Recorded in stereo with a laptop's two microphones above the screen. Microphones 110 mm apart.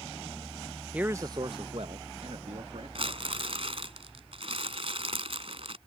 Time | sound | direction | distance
0.9 | a man speaking | 10° right (ahead or behind) | ?
3.0 | crumpling | 60° right (ahead or behind) | ?